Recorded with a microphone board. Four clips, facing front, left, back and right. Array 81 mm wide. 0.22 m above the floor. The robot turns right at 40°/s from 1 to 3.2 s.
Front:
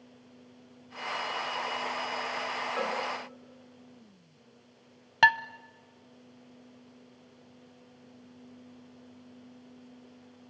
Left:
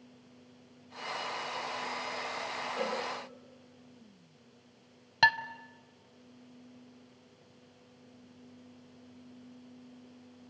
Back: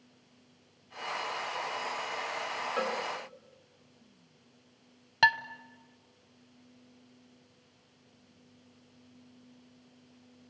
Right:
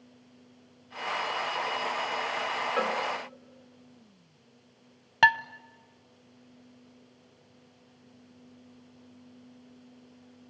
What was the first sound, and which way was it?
A cowbell, 100° right.